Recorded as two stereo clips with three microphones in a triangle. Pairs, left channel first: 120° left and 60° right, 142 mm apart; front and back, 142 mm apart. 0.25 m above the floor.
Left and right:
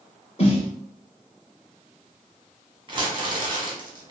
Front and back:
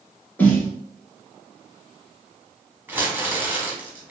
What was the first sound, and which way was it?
A snare drum, 75° left.